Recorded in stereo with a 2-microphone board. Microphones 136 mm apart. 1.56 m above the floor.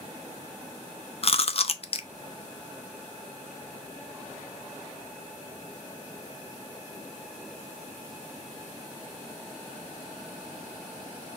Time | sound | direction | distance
1.2 | chewing | 45° left (ahead or behind) | 0.5 m